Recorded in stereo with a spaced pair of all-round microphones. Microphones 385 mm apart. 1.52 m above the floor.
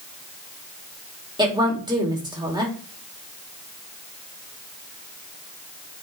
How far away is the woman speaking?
About 2.5 m.